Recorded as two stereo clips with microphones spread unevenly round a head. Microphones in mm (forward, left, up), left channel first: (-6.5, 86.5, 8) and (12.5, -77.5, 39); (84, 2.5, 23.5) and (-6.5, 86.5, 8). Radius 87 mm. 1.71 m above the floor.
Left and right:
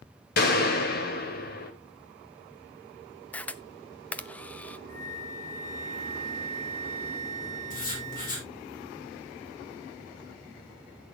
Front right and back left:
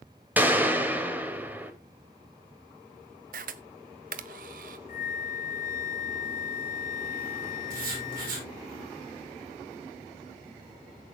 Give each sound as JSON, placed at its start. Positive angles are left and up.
{"t": 0.4, "sound": "a gunshot", "azimuth_deg": 60, "distance_m": 3.0}
{"t": 3.3, "sound": "a camera shutter", "azimuth_deg": 180, "distance_m": 0.6}
{"t": 4.9, "sound": "a flute", "azimuth_deg": -35, "distance_m": 1.6}
{"t": 7.7, "sound": "writing", "azimuth_deg": 140, "distance_m": 6.0}